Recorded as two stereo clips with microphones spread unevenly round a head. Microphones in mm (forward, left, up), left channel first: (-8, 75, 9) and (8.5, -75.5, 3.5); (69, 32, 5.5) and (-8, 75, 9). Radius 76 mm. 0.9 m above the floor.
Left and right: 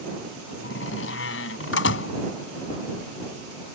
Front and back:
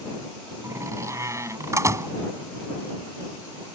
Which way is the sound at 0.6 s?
95° left.